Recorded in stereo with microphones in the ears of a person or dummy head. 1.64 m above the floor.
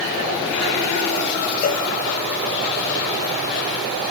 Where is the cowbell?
45° left (ahead or behind).